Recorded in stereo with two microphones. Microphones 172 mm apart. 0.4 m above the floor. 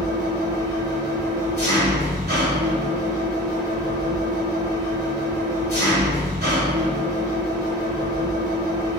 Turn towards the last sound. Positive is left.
turn(degrees=-65)  # may be behind; listen again after turning